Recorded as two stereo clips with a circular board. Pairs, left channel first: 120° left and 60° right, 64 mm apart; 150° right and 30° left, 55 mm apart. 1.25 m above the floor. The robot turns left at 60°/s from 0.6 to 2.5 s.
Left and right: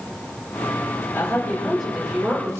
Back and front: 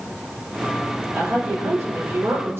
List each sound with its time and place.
1.1 s a woman speaking: 70° left, 4 m; by 2.6 s 10° right, 4 m